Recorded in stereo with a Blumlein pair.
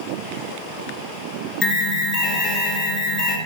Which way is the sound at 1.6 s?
10° left.